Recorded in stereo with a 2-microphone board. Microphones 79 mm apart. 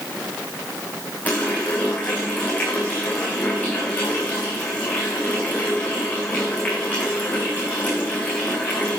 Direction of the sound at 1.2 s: 20° left (ahead or behind).